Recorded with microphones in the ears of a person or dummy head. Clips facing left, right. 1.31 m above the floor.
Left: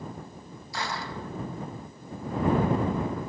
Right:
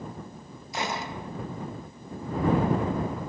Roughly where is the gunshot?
Right.